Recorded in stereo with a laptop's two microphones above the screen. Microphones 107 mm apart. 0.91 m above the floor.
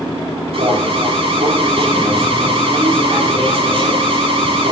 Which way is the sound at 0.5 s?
60° right (ahead or behind).